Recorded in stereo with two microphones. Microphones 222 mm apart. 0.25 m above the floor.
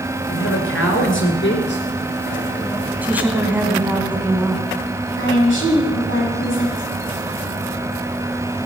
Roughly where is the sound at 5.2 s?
Left.